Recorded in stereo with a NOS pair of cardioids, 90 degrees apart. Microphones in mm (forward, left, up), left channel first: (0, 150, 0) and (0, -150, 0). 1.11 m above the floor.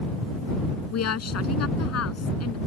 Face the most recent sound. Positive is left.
turn(degrees=55)